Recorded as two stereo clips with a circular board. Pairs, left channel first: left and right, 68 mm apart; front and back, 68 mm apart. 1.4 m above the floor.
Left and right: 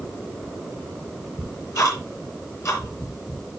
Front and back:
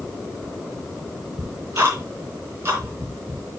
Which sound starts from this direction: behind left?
Ticking, at 1.4 s.